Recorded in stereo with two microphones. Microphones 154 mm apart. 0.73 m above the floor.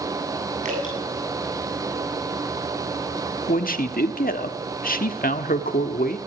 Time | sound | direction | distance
0.7 | dripping | 55° right (ahead or behind) | 7.5 m
3.5 | a man speaking | 70° left (ahead or behind) | 1.2 m